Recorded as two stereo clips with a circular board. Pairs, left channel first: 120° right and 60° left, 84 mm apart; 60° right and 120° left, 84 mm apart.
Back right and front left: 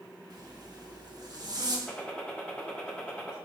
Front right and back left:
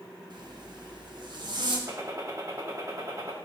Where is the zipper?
95° left, 1.0 m.